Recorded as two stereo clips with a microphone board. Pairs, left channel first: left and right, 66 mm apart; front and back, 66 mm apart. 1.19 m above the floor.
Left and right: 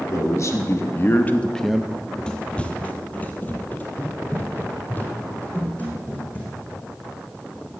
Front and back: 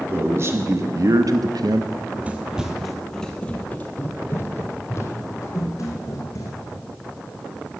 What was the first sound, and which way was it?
A man speaking, 130° left.